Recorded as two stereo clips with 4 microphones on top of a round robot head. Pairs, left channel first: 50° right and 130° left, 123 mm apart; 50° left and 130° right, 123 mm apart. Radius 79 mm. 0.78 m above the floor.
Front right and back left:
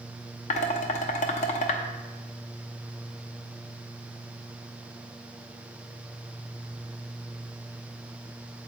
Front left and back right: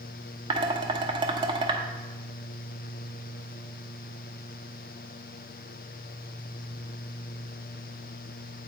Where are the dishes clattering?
80° right, 0.8 m.